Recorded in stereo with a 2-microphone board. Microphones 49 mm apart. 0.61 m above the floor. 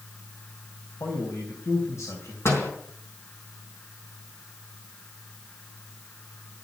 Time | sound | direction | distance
1.0 | a man speaking | 75° left (ahead or behind) | 3.5 m
2.5 | a door slam | 60° left (ahead or behind) | 4 m